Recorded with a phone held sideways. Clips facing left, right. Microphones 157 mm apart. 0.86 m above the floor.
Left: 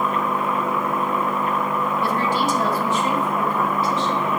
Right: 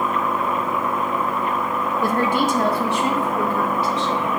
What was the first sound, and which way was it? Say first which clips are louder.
A woman speaking: right 4 dB; 45° right (ahead or behind).